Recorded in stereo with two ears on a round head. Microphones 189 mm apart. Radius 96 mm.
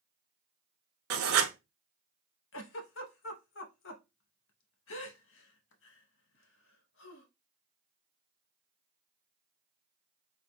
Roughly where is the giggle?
Left.